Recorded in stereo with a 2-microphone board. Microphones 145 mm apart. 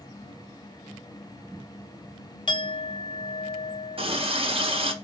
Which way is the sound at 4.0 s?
40° right (ahead or behind).